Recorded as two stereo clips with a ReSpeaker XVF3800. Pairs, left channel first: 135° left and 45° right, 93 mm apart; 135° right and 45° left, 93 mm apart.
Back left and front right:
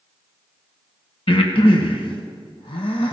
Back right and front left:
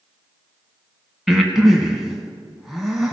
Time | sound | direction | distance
1.3 | breathing | 135° left | 1.2 m